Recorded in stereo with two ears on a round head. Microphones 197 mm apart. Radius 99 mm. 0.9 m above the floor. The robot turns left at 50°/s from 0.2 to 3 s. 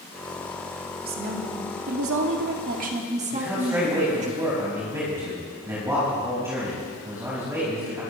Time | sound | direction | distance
1.0 | a woman speaking | 45° right | 1.8 m
3.3 | a man speaking | 15° right (ahead or behind) | 5 m